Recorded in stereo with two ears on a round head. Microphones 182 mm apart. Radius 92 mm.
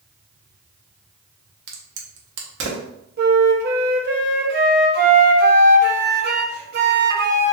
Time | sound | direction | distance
1.7 | a crack | 65° right (ahead or behind) | 0.8 m
3.2 | a flute | 55° right (ahead or behind) | 0.7 m